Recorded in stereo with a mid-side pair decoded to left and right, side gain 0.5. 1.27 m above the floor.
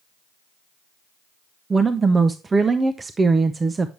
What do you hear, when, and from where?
1.7 s a woman speaking: 30° right, 0.6 m